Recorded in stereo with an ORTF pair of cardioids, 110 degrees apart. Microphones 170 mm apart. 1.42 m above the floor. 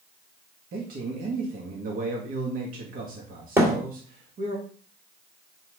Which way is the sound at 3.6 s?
15° right.